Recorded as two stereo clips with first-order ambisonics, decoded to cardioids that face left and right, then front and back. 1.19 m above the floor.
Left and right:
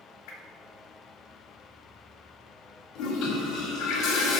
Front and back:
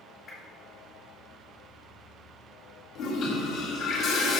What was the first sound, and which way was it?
A whoosh, 65° left.